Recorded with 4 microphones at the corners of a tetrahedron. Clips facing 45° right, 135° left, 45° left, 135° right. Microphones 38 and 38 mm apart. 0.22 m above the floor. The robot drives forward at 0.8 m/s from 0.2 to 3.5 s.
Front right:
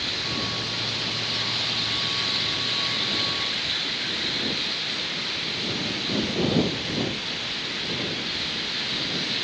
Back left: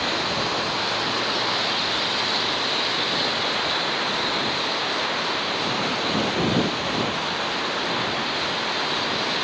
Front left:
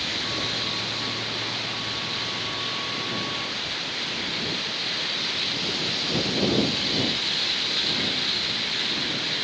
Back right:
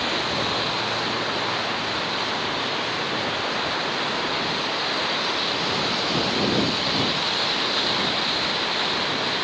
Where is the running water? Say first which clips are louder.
Back left 5 dB, back right 4 dB; 175° left.